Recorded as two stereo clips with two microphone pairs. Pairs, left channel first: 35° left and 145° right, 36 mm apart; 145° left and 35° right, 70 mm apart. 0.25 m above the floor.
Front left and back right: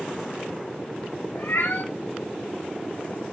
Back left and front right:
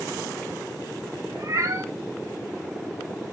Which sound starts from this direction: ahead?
A cat meowing, at 1.4 s.